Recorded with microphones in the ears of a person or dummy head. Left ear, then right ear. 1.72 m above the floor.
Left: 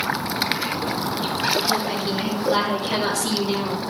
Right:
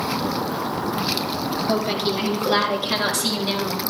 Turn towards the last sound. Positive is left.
turn(degrees=-85)